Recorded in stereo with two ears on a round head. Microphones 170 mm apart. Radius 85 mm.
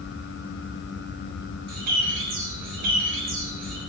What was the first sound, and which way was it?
A bird, 55° right (ahead or behind).